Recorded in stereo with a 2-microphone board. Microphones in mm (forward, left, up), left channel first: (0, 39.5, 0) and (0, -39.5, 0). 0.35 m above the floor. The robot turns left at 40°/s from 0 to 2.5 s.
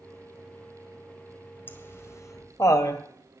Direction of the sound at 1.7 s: 25° left (ahead or behind).